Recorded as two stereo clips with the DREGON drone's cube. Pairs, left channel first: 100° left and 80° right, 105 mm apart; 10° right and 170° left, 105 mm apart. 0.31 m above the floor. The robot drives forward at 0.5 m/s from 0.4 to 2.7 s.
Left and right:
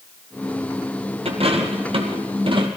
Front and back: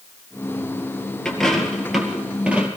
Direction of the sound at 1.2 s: 95° right.